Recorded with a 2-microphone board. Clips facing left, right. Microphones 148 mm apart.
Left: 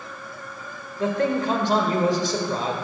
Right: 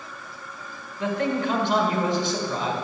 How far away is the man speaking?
About 1.7 m.